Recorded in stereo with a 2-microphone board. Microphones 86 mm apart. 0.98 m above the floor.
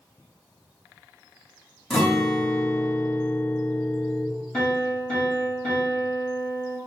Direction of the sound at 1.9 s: 5° left (ahead or behind).